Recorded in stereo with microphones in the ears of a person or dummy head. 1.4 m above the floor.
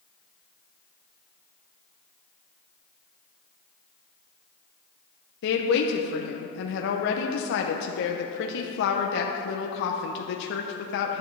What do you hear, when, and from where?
5.4 s a woman speaking: 70° left (ahead or behind), 0.7 m